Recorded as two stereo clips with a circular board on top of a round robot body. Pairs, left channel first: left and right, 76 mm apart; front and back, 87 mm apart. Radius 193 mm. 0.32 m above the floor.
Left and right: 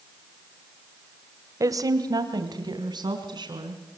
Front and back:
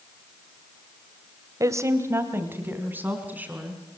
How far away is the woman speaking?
About 2.0 m.